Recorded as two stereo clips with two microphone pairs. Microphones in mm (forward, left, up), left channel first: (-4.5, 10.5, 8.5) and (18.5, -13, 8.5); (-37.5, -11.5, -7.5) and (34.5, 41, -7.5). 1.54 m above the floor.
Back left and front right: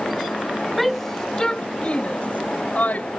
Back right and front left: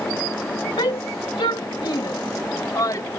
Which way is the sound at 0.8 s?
130° right.